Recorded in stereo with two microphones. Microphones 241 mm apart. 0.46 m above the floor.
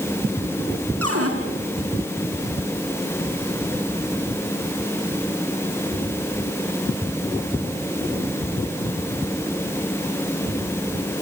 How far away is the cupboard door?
About 5.5 m.